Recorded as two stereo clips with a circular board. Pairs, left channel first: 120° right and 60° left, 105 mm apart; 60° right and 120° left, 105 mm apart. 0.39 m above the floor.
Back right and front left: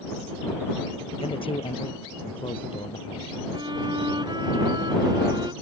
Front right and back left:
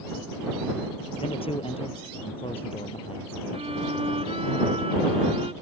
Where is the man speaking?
90° right.